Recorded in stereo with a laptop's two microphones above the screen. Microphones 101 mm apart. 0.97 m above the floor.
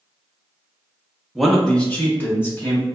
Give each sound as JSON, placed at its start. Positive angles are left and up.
{"t": 1.4, "sound": "a man speaking", "side_deg": -5, "distance_m": 0.6}